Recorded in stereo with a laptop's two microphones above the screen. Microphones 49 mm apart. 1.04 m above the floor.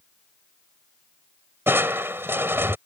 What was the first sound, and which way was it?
Crushing, 55° right (ahead or behind).